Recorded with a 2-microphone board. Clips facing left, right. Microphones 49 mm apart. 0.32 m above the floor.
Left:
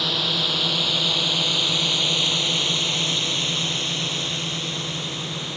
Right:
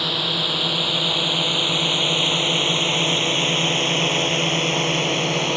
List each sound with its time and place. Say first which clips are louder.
0.0 s a drone: right 1 dB; 5° right (ahead or behind); by 5.6 s 65° right (ahead or behind)